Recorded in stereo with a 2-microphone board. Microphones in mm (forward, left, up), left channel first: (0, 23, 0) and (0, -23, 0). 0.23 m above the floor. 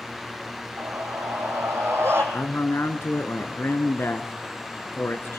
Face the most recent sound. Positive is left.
turn(degrees=65)  # may be behind; listen again after turning